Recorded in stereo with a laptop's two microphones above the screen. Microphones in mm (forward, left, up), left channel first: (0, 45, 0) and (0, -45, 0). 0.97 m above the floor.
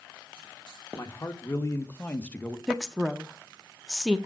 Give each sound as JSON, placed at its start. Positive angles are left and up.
{"t": 0.9, "sound": "a man speaking", "side_deg": 35, "distance_m": 1.9}
{"t": 2.7, "sound": "a woman speaking", "side_deg": -5, "distance_m": 0.5}